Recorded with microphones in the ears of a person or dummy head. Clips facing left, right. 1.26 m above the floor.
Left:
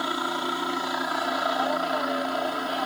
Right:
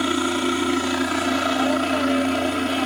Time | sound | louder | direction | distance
0.0 | a helicopter | right 9 dB | 35° right (ahead or behind) | ?